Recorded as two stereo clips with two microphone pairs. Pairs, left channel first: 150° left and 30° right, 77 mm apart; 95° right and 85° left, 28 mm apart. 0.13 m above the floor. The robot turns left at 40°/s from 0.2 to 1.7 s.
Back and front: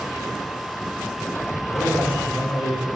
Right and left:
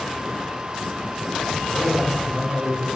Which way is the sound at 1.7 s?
175° right.